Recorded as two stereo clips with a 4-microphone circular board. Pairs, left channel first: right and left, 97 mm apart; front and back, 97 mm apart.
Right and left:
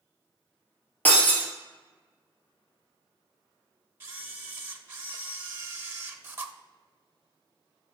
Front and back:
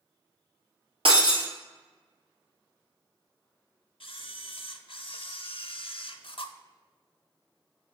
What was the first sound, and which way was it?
Breaking glass, 160° right.